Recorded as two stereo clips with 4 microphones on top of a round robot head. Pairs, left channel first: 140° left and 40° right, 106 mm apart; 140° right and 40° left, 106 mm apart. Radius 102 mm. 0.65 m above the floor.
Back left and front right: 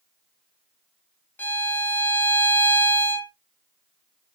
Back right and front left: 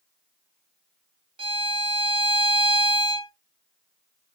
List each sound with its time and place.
1.4 s a violin: 70° left, 0.9 m